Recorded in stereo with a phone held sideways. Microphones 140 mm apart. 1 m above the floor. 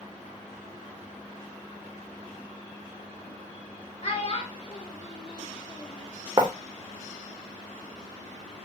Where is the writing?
30° right (ahead or behind), 0.6 m.